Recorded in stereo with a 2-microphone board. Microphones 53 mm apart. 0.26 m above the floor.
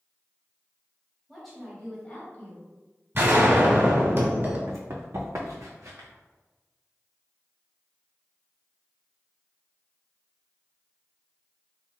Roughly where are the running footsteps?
Right.